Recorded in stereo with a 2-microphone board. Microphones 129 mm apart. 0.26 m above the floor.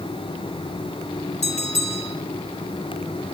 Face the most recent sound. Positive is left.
turn(degrees=60)  # may be behind; listen again after turning